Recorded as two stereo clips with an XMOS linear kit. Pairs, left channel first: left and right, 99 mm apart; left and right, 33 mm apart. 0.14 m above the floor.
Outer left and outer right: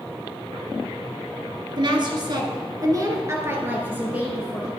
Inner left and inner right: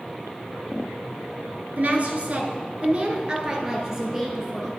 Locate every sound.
1.8 s a woman speaking: 50° right (ahead or behind), 1.7 m; by 4.7 s 10° right (ahead or behind), 3 m